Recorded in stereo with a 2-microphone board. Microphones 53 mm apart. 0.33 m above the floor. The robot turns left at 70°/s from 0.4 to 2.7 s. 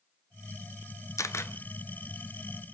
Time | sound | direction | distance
1.2 | a camera shutter | 75° left (ahead or behind) | 1.0 m